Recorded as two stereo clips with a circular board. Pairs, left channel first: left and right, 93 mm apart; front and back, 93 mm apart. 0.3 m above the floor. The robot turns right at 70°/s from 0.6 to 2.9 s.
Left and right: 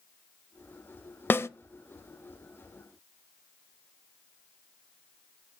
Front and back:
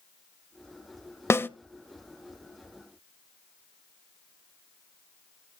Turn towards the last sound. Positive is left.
turn(degrees=150)